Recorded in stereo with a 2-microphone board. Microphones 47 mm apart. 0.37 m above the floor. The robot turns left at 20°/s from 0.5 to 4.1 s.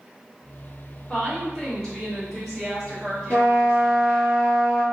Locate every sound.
1.1 s a woman speaking: 25° left, 1.6 m; by 4.3 s 40° right, 1.6 m
3.3 s a trumpet: 30° left (ahead or behind), 1.2 m; by 4.8 s 15° left (ahead or behind), 1.2 m